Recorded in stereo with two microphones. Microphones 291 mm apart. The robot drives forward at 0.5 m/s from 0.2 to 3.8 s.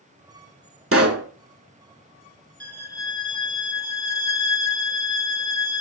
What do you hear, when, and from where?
0.9 s a pop: 45° right (ahead or behind), 0.6 m; by 1.3 s 50° right (ahead or behind), 0.6 m
2.6 s a violin: 50° left (ahead or behind), 0.7 m; by 5.8 s 60° left (ahead or behind), 0.6 m